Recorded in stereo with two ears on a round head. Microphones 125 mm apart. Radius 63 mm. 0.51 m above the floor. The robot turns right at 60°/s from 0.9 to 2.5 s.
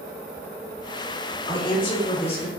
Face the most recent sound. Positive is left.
turn(degrees=105)